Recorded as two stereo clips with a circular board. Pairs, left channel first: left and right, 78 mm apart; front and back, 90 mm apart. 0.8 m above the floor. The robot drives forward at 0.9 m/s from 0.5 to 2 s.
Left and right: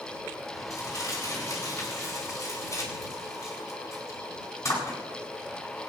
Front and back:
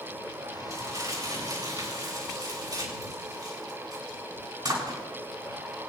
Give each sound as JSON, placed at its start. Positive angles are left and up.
{"t": 0.7, "sound": "crumpling", "azimuth_deg": 135, "distance_m": 7.0}